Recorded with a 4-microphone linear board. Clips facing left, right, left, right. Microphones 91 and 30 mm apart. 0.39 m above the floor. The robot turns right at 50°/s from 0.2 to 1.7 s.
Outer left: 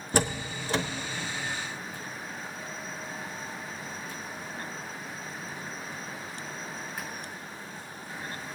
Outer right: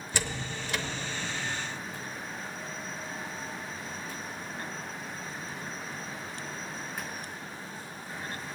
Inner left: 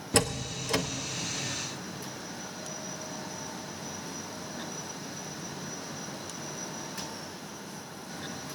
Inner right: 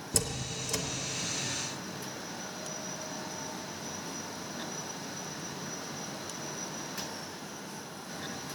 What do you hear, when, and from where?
0.1 s a door slam: 45° left (ahead or behind), 0.9 m; by 0.8 s 30° left (ahead or behind), 0.9 m